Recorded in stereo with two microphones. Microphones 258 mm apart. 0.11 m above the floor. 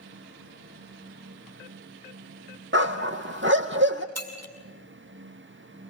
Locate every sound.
2.7 s a dog barking: 50° right (ahead or behind), 1.3 m
4.2 s breaking glass: 70° right (ahead or behind), 2 m